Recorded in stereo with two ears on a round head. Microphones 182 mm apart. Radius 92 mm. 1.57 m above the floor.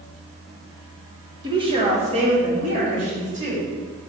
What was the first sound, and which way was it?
A woman speaking, 20° right (ahead or behind).